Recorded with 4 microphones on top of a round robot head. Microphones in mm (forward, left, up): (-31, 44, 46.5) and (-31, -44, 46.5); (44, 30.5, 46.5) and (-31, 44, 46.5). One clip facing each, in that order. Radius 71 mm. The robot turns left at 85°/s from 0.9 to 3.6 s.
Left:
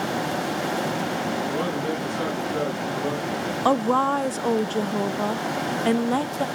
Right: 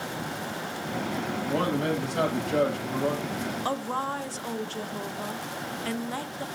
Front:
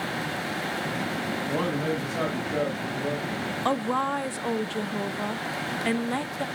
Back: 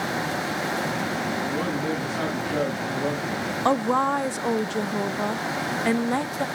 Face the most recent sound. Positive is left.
turn(degrees=105)